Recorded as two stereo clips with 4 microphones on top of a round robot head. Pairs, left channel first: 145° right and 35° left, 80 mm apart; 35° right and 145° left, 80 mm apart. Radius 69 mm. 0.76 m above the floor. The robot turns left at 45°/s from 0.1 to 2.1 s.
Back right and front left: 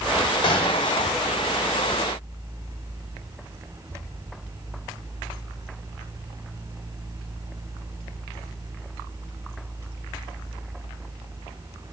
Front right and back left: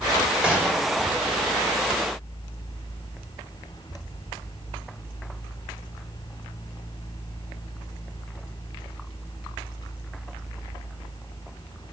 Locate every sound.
0.4 s a gunshot: 135° right, 2.5 m; by 0.9 s 160° right, 2.5 m